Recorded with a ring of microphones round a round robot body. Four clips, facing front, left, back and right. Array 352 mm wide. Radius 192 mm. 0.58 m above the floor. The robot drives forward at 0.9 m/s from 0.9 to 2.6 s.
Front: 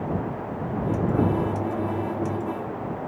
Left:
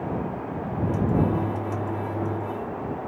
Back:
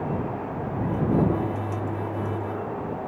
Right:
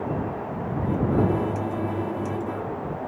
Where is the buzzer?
No buzzer in this recording.